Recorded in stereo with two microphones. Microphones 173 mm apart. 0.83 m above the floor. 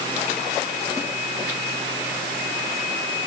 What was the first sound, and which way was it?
Only background noise.